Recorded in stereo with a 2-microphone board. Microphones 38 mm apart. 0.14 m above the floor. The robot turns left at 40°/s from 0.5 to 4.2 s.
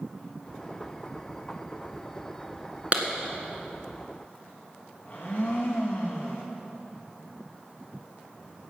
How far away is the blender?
About 3 m.